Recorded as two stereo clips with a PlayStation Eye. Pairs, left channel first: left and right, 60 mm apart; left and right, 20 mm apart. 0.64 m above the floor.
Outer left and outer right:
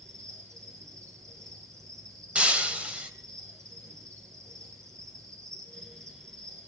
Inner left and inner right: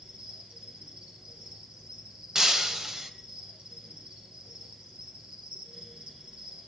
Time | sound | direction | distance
0.0 | an insect | 55° right (ahead or behind) | 9.5 m
2.4 | breaking glass | 20° right (ahead or behind) | 1.8 m